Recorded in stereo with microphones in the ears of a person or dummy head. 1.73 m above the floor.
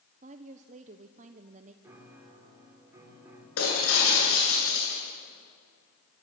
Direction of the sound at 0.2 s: 40° right (ahead or behind).